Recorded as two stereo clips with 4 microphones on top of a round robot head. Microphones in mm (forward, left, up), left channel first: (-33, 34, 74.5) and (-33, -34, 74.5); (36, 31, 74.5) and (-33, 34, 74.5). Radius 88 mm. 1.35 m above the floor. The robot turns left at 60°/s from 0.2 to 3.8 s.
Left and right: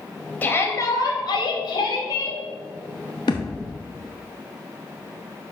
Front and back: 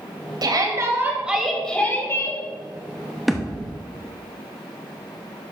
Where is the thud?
90° left, 0.8 m; by 3.7 s 65° left, 0.8 m.